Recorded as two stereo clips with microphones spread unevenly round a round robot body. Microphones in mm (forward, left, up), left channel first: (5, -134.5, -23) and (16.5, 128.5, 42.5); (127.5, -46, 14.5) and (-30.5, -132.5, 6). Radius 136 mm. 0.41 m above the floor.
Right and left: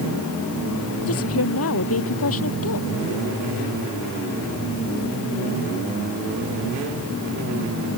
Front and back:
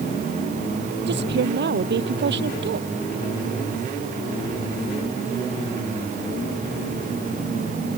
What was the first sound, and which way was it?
A woman speaking, 130° right.